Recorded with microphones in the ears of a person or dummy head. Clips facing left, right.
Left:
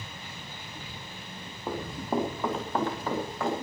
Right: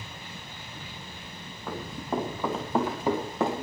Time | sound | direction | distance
1.7 | running footsteps | 20° left (ahead or behind) | 3.5 m